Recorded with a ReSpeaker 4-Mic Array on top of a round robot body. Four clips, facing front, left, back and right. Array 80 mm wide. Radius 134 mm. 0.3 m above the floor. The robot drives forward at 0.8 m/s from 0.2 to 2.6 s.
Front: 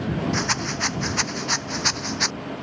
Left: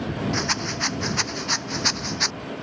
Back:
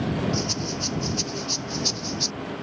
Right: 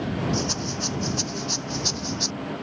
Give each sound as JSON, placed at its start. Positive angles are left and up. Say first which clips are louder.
{"t": 0.3, "sound": "a rattle", "louder": "left 1 dB, front 3 dB", "azimuth_deg": 35}